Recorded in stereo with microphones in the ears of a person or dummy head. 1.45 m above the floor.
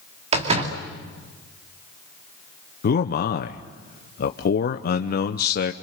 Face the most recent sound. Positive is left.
turn(degrees=50)  # may be behind; listen again after turning